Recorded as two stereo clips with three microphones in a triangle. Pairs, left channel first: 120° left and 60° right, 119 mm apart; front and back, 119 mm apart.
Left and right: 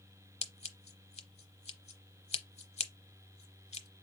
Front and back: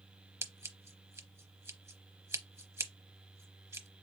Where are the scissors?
115° left, 0.8 m.